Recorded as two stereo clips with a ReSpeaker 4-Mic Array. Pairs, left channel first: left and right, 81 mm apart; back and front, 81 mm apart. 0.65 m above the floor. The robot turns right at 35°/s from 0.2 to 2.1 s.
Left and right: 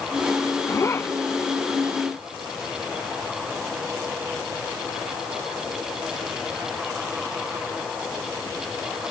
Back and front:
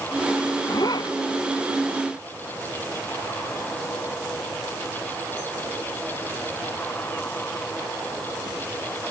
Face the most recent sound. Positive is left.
turn(degrees=-170)